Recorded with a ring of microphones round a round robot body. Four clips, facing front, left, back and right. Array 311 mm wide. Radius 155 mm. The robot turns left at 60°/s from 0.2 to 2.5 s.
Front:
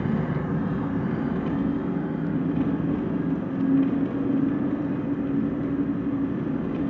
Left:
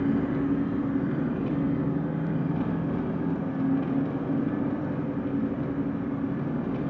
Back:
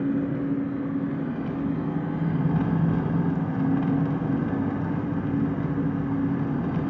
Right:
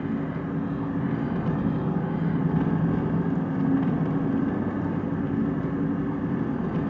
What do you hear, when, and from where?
0.0 s an engine running: straight ahead, 0.7 m; by 6.9 s 135° right, 0.7 m